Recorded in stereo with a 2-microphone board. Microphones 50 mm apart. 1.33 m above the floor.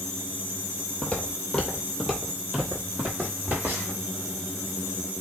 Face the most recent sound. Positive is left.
turn(degrees=-40)  # may be behind; listen again after turning